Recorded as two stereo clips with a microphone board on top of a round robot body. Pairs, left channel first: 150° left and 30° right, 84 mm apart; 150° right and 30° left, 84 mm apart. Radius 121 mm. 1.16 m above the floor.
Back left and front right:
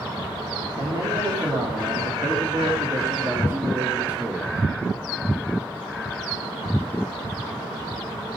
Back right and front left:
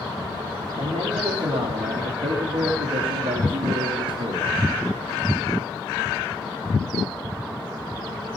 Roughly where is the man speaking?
Ahead.